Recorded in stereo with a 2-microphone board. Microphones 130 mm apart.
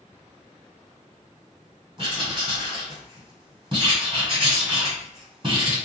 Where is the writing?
40° right (ahead or behind), 1.6 m.